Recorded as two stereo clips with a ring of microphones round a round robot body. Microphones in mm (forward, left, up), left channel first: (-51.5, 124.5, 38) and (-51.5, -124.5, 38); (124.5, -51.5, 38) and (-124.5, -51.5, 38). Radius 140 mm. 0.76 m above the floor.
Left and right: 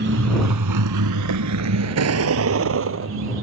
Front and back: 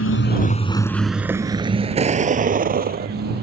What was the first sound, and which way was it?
A vehicle, 35° right.